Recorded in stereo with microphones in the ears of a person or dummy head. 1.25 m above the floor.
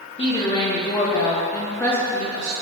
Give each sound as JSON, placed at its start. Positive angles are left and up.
{"t": 0.2, "sound": "a woman speaking", "side_deg": 20, "distance_m": 1.9}